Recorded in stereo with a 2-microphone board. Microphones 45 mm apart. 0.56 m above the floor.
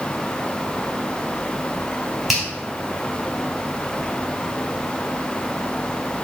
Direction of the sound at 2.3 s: 10° right (ahead or behind).